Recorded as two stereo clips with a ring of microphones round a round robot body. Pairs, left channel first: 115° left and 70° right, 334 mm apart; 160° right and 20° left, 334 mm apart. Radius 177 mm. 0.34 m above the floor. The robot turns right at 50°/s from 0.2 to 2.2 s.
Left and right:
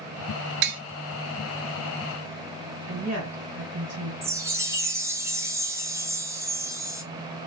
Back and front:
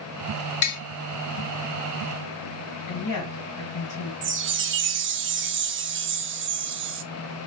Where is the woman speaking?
135° right, 2.5 m.